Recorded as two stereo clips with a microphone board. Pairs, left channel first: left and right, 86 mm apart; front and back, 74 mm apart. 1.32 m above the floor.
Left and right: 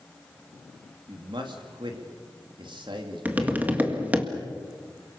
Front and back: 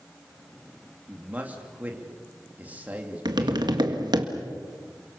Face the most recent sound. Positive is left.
turn(degrees=-160)